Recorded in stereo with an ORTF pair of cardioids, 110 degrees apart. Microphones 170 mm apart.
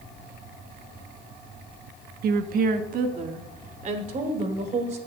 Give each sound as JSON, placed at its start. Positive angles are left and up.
{"t": 2.2, "sound": "a woman speaking", "azimuth_deg": -65, "distance_m": 0.9}